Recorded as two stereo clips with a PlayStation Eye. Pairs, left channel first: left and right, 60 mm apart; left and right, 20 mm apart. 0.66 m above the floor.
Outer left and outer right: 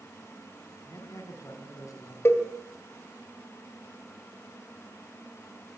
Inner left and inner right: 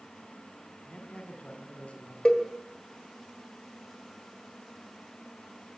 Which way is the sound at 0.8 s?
65° left (ahead or behind).